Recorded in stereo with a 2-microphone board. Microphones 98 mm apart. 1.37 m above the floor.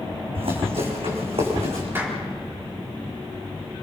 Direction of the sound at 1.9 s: 20° right (ahead or behind).